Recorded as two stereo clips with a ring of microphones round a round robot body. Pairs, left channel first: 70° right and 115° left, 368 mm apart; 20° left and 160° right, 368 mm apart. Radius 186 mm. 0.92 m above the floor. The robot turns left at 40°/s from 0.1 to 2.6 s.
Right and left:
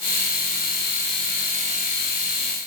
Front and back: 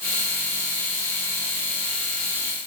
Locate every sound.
Only background noise.